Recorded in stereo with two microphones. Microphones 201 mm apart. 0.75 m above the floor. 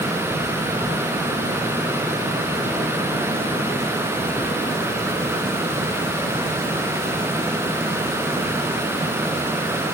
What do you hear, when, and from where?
Only background noise.